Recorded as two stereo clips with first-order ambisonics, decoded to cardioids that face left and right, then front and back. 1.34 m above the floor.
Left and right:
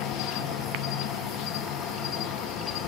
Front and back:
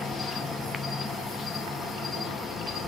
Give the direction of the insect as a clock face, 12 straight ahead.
9 o'clock.